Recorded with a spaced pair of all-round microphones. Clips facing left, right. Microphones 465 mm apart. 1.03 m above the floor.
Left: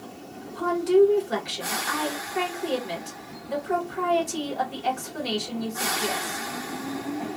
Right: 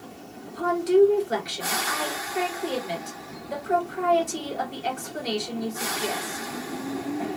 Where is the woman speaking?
10° left (ahead or behind), 1.1 m.